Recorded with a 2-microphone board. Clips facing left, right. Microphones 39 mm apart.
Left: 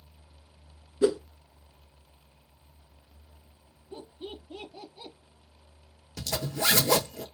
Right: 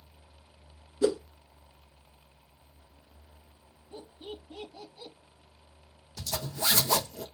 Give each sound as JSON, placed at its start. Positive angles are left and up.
{"t": 1.0, "sound": "a whoosh", "side_deg": 20, "distance_m": 0.6}
{"t": 3.9, "sound": "laughter", "side_deg": 20, "distance_m": 1.0}
{"t": 6.2, "sound": "a zipper", "side_deg": 70, "distance_m": 0.8}